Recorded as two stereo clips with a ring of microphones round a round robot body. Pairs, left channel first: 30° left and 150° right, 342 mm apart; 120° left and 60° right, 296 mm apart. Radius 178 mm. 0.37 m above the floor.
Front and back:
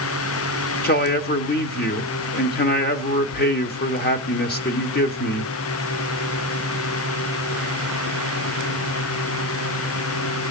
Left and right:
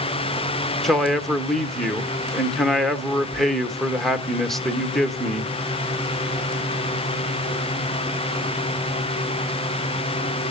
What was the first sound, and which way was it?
A man speaking, 30° left.